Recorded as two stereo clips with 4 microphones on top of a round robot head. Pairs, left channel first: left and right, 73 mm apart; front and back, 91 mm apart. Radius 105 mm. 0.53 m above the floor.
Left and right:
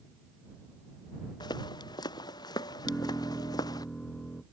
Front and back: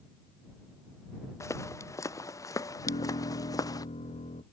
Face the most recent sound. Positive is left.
turn(degrees=15)